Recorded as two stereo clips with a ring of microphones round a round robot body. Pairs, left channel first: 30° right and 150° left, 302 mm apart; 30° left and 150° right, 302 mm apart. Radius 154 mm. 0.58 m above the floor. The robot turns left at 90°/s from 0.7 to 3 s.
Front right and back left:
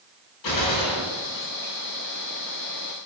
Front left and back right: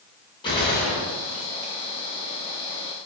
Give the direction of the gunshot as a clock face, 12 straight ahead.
1 o'clock.